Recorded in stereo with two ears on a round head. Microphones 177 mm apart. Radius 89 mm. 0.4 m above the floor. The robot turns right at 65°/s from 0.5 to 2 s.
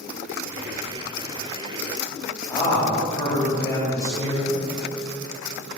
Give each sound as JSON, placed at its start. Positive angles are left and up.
{"t": 2.5, "sound": "a man speaking", "side_deg": 15, "distance_m": 3.0}